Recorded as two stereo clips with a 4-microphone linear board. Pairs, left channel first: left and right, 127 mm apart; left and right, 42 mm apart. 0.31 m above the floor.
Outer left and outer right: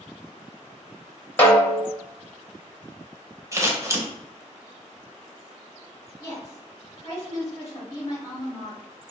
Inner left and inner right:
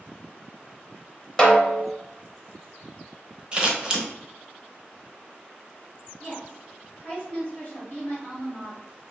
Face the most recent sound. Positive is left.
turn(degrees=25)  # may be behind; listen again after turning